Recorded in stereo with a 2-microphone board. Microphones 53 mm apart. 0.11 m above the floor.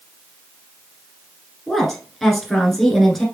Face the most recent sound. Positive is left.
turn(degrees=5)  # may be behind; listen again after turning